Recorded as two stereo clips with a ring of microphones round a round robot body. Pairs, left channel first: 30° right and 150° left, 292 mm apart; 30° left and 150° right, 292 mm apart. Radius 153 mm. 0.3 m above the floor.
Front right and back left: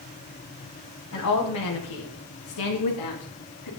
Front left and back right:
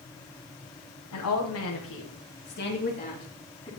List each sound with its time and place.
1.1 s a woman speaking: 5° left, 2.0 m; by 3.7 s 45° right, 2.5 m